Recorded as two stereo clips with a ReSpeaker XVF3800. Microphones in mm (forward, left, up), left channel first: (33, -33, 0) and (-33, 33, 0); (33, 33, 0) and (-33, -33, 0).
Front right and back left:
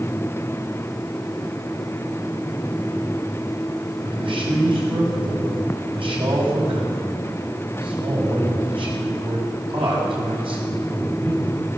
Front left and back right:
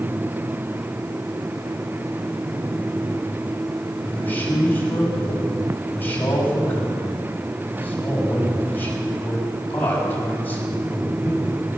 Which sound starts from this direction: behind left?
A man speaking, at 4.0 s.